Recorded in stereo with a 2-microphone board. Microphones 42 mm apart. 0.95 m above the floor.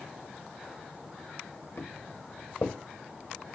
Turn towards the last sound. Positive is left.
turn(degrees=60)  # may be behind; listen again after turning